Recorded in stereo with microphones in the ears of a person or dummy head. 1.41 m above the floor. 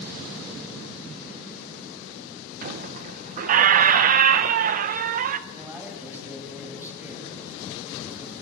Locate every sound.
2.6 s a squeak: 45° right (ahead or behind), 0.7 m
5.5 s a man speaking: 15° right (ahead or behind), 6.5 m